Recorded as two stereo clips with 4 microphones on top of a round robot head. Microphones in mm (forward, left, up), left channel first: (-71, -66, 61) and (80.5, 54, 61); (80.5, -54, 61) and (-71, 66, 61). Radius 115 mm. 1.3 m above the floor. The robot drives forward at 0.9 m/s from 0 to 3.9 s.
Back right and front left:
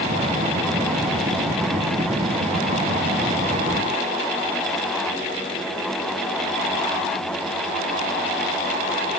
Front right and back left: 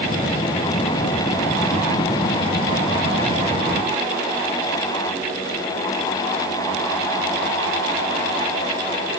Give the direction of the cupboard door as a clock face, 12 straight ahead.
I don't hear a cupboard door.